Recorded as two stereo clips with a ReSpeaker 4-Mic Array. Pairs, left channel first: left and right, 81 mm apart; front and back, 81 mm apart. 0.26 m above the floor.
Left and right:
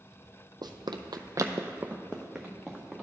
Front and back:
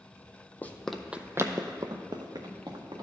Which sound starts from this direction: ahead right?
Running footsteps, at 0.6 s.